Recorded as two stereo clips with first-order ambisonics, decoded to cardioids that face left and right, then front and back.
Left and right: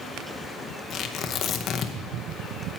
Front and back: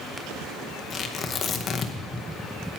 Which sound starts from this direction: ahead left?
Tearing paper, at 0.9 s.